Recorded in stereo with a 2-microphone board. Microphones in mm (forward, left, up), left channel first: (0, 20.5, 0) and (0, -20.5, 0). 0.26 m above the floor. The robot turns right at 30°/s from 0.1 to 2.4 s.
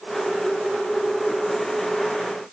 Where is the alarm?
I don't hear an alarm.